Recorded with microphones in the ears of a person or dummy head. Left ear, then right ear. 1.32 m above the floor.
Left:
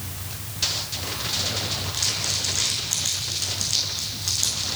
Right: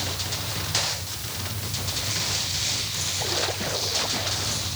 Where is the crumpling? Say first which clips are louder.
Left 1 dB; 55° left (ahead or behind), 8 m.